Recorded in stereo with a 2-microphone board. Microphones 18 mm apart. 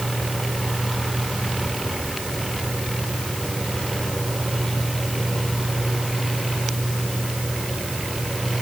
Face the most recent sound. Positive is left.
No sound to turn to.